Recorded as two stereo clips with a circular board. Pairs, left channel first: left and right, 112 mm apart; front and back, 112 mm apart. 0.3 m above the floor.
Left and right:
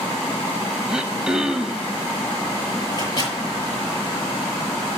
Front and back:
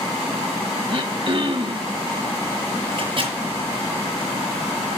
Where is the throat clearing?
175° right, 0.7 m.